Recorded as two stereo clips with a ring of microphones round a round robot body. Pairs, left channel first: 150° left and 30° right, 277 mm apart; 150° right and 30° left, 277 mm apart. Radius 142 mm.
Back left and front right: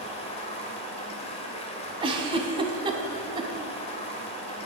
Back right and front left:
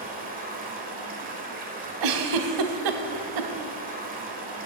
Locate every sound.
0.0 s running water: 85° left, 1.3 m
2.0 s a giggle: 45° left, 0.8 m